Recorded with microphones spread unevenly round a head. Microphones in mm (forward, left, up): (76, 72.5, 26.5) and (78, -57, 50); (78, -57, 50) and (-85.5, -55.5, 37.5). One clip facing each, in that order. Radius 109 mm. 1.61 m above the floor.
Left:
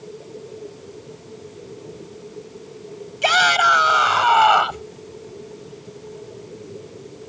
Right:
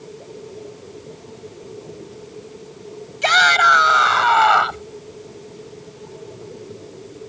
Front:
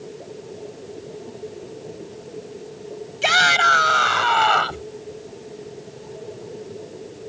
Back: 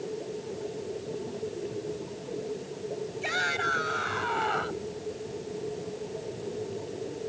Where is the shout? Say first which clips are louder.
Right 1 dB, front 10 dB; 10° left; by 4.9 s 15° left.